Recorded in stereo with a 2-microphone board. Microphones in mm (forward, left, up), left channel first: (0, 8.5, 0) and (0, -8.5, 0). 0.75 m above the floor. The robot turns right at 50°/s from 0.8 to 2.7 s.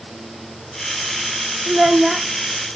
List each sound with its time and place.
1.7 s a child speaking: 50° right, 0.8 m; by 2.3 s 20° right, 0.8 m